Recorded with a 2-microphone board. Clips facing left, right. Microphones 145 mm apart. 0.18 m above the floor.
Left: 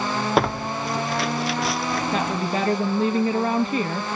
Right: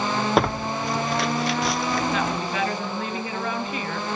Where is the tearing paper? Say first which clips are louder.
Left 1 dB; centre (ahead or behind), 0.8 m.